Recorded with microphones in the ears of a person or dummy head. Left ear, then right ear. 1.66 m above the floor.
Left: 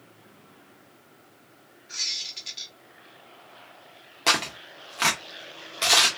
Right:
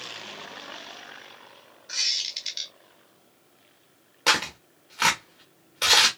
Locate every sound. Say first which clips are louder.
1.9 s a squeak: right 3 dB; 20° right (ahead or behind), 0.6 m
4.3 s tearing paper: even; 5° left (ahead or behind), 0.9 m